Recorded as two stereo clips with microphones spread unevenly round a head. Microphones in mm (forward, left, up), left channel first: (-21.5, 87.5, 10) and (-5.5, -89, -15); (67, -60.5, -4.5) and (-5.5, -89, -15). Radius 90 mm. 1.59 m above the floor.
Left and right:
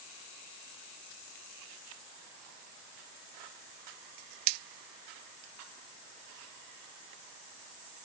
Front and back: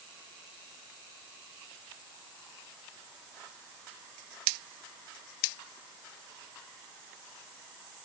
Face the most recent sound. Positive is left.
No sound to turn to.